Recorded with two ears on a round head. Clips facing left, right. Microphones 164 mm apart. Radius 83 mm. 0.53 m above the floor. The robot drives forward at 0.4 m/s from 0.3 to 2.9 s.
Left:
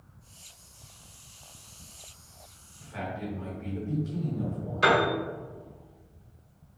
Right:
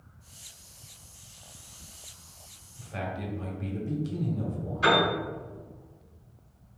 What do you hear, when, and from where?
2.8 s a man speaking: 40° right (ahead or behind), 1.2 m
4.8 s a piano: 65° left (ahead or behind), 1.8 m